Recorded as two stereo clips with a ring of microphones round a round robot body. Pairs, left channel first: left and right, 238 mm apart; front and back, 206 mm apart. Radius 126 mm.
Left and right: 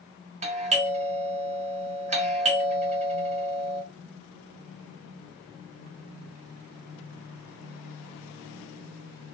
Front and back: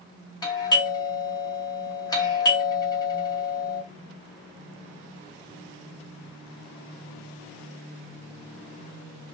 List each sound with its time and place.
0.4 s a doorbell: 55° right, 0.9 m